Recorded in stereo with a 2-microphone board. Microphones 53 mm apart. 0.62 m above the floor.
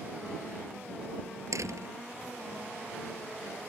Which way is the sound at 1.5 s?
85° right.